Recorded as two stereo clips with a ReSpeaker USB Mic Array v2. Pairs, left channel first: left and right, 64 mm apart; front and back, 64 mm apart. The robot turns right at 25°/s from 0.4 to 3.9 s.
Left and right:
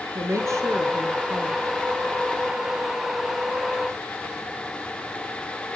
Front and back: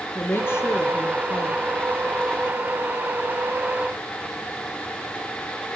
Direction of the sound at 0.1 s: 55° right.